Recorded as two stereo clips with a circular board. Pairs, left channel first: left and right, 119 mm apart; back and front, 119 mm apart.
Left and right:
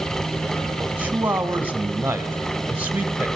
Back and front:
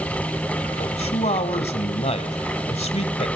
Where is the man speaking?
165° right, 1.8 m.